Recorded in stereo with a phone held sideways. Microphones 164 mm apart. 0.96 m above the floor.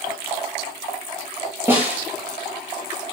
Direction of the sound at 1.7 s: 15° right (ahead or behind).